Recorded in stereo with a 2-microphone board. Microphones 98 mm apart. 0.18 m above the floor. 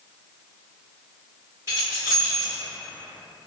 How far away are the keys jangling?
About 1.8 m.